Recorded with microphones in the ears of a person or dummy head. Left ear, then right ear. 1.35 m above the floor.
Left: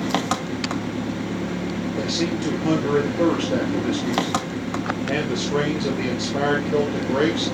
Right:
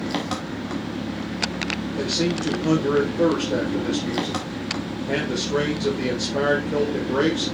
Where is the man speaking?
10° left (ahead or behind), 1.3 m.